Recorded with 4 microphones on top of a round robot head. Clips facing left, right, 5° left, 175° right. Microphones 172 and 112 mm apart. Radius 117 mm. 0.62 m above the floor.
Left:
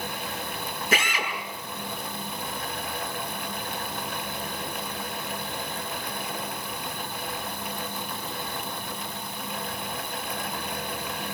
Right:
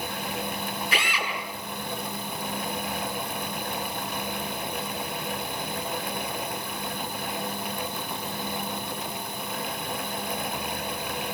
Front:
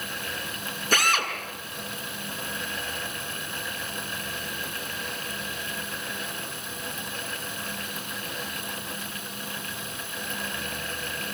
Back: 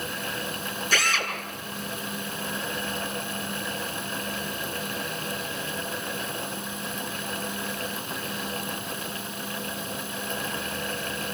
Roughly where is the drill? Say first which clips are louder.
Left 6 dB, front 3 dB; ahead left.